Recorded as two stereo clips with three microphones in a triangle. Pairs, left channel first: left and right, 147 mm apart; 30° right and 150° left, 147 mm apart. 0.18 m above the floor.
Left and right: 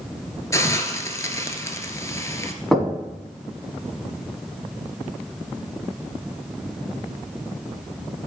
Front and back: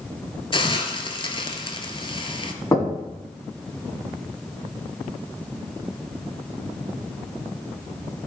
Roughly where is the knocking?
Ahead.